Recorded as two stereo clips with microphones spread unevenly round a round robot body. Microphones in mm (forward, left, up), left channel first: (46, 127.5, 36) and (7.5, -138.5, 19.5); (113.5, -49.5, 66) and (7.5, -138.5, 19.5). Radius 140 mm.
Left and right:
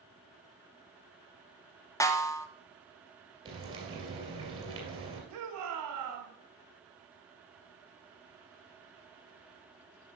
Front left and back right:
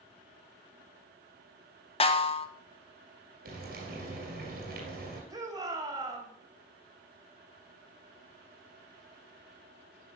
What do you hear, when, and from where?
2.0 s a snare drum: 5° left, 0.8 m
3.5 s frying: 175° right, 2.5 m
5.3 s a shout: 85° right, 3 m